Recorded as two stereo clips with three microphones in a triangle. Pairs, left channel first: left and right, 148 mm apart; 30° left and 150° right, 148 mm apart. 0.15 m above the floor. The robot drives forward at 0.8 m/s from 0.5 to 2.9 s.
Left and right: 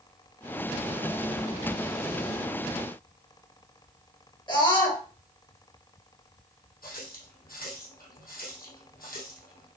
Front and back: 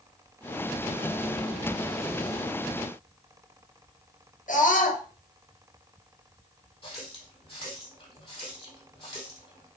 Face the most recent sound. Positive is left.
turn(degrees=85)